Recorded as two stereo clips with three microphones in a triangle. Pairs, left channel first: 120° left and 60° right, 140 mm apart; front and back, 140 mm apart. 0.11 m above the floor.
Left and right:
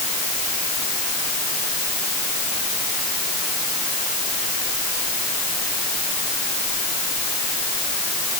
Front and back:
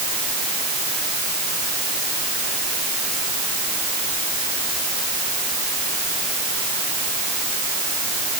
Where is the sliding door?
I don't hear a sliding door.